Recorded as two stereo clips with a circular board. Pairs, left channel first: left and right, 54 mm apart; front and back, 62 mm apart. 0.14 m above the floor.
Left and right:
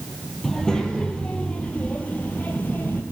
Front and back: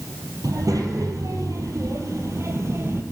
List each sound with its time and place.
0.4 s a child speaking: 170° left, 3 m; by 3.0 s 140° left, 3 m